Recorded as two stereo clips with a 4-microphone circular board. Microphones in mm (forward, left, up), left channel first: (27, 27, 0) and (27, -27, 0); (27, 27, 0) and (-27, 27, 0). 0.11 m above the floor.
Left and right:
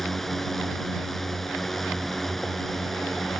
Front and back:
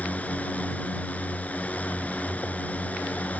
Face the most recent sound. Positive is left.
turn(degrees=10)